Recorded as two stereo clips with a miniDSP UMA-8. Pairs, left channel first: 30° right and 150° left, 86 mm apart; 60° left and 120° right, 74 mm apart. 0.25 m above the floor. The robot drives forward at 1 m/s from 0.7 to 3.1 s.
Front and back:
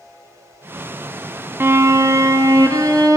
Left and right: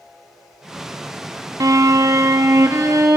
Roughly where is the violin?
Behind right.